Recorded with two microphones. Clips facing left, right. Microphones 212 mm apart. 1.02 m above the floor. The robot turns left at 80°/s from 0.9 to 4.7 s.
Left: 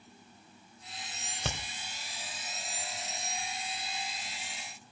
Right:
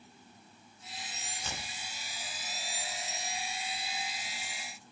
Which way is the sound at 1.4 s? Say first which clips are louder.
Left 6 dB; 70° left (ahead or behind).